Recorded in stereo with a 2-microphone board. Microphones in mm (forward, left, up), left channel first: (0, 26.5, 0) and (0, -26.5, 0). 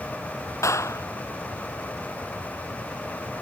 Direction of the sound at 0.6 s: 70° left (ahead or behind).